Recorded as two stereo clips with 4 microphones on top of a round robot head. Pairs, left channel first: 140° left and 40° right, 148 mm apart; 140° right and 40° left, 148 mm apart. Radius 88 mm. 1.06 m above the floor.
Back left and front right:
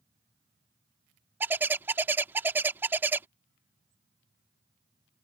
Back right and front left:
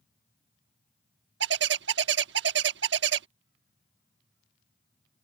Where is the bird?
35° left.